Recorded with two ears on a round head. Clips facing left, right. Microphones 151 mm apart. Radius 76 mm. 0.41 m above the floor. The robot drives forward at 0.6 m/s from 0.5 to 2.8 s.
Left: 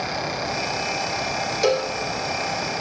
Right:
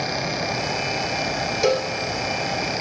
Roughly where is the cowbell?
Centre.